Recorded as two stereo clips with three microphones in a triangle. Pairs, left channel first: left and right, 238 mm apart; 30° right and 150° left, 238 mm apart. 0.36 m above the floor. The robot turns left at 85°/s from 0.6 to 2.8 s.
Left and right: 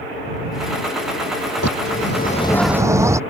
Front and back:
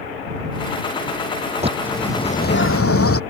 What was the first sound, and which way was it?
A bird, 85° left.